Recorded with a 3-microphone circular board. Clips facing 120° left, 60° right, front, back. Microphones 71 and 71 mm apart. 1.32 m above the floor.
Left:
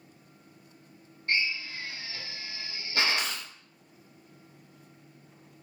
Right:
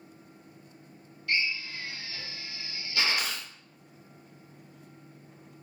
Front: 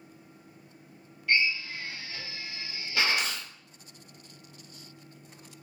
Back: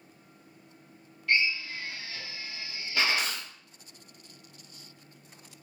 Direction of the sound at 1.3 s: 85° left.